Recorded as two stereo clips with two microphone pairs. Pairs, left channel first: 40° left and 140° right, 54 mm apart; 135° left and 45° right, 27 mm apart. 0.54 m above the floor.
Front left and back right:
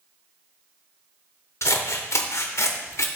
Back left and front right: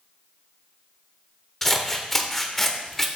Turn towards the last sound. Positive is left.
turn(degrees=55)